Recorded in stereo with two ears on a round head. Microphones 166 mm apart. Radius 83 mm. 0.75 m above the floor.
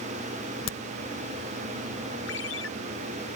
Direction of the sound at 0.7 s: 80° left.